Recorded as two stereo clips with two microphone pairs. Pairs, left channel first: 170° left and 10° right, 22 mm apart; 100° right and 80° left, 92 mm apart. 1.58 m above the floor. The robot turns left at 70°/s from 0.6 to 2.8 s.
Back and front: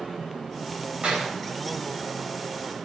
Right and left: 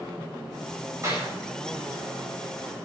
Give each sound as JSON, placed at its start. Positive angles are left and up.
{"t": 1.0, "sound": "a clap", "azimuth_deg": 25, "distance_m": 8.5}